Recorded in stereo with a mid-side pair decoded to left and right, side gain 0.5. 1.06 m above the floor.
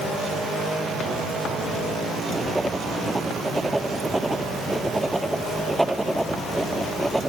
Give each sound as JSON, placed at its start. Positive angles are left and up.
{"t": 2.4, "sound": "writing", "azimuth_deg": -5}